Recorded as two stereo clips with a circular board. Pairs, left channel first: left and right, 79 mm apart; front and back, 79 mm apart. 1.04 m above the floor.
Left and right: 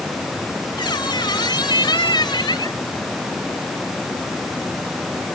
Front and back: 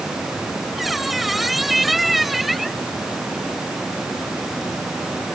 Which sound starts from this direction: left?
A squeak, at 0.8 s.